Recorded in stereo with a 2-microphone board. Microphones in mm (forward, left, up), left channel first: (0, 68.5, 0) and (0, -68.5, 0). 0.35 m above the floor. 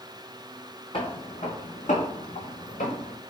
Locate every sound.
0.9 s footsteps: 40° left (ahead or behind), 0.9 m; by 3.1 s 75° left (ahead or behind), 1.7 m